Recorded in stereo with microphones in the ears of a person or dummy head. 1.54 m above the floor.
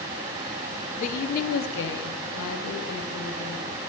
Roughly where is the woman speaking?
Left.